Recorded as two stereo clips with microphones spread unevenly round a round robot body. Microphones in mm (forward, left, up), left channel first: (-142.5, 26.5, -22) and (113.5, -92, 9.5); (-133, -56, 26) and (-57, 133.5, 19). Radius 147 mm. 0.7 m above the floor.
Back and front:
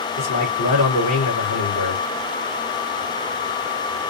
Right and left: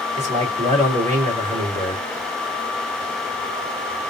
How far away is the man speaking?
About 2.5 m.